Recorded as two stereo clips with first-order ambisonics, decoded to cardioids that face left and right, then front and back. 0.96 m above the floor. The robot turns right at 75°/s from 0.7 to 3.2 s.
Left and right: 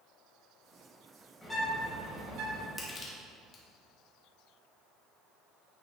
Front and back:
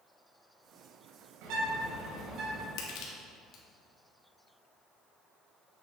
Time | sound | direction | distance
1.4 | a bird | 165° left | 3 m
2.8 | crushing | 10° left | 1.6 m